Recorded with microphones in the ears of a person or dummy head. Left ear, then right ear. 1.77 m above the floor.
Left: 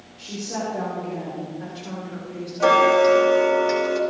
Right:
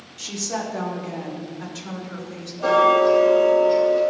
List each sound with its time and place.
0.2 s a woman speaking: 50° right (ahead or behind), 3.5 m; by 2.5 s 40° right (ahead or behind), 4.5 m
2.6 s ticking: 70° left (ahead or behind), 2.5 m